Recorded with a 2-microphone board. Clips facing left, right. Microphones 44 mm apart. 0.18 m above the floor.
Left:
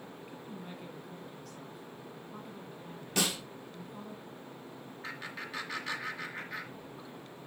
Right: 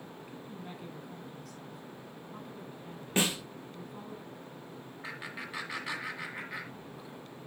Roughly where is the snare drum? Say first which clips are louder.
Right 3 dB; right.